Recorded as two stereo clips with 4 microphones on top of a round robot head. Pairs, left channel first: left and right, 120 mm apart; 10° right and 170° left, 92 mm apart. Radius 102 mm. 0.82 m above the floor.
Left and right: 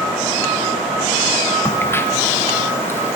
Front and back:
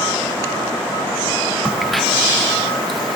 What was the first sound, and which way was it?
A crack, 80° left.